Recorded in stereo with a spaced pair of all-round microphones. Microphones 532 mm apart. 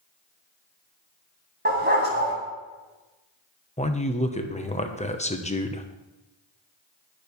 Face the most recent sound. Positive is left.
turn(degrees=15)  # may be behind; listen again after turning